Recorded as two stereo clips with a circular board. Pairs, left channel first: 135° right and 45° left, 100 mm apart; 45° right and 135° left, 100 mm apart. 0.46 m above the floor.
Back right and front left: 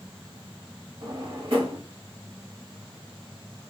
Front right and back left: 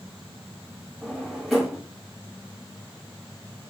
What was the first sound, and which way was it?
A drawer, 45° left.